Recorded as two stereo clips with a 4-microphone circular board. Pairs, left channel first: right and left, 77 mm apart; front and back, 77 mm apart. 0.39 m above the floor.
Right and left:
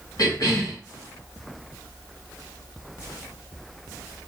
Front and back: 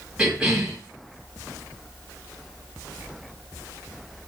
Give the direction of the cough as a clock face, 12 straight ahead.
4 o'clock.